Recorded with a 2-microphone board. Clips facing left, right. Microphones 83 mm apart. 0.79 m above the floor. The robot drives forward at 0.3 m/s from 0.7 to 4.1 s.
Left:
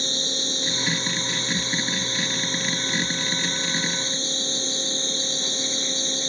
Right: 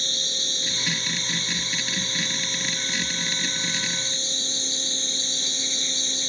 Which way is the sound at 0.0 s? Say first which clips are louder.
Left 5 dB; 30° left (ahead or behind).